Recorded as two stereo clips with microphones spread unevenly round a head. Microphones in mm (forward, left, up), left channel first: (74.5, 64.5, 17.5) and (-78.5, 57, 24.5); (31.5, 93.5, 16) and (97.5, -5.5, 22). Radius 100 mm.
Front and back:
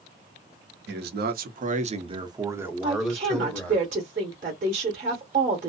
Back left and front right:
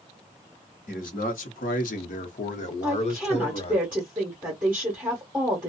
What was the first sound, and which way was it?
A man speaking, 175° left.